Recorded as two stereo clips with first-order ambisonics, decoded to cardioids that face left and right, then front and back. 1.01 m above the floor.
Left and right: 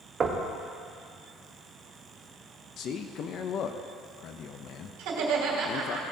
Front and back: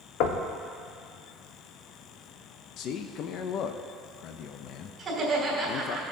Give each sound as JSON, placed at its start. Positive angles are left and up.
{"t": 0.2, "sound": "knocking", "azimuth_deg": -25, "distance_m": 0.8}
{"t": 2.8, "sound": "a man speaking", "azimuth_deg": 40, "distance_m": 0.5}
{"t": 5.0, "sound": "laughter", "azimuth_deg": -105, "distance_m": 3.0}